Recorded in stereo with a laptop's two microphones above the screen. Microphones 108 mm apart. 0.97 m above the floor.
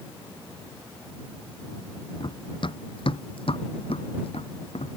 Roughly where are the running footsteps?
Left.